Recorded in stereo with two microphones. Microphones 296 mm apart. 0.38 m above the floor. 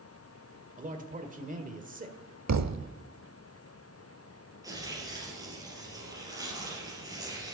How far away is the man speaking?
About 1.5 m.